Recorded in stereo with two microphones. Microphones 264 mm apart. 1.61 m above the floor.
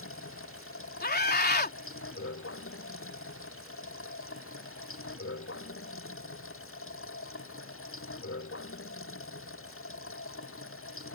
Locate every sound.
0.0 s running water: 55° left (ahead or behind)
1.0 s a scream: 35° left (ahead or behind)